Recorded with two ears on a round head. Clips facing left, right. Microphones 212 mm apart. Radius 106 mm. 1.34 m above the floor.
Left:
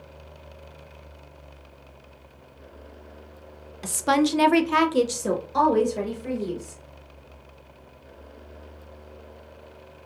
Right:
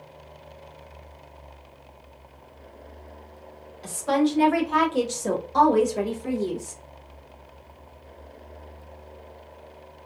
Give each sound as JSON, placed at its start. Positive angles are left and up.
{"t": 3.8, "sound": "a woman speaking", "side_deg": 65, "distance_m": 0.6}